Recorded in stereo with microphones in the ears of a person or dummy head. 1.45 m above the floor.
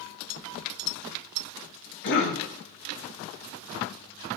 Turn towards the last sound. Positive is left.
turn(degrees=60)  # may be behind; listen again after turning